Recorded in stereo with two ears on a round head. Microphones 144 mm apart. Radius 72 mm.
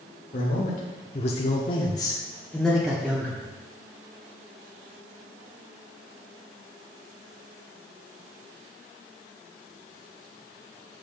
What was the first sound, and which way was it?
A man speaking, 45° left (ahead or behind).